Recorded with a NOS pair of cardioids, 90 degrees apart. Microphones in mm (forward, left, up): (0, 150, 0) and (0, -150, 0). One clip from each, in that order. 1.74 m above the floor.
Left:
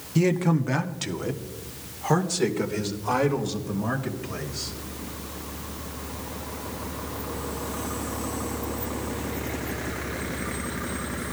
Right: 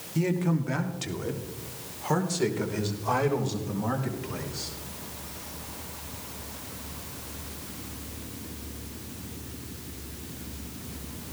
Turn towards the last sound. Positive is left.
turn(degrees=10)